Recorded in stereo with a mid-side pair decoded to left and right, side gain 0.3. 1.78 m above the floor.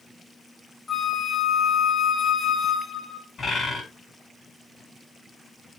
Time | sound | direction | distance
0.9 | a flute | 45° left | 2.5 m
3.4 | a bird | 60° left | 7.5 m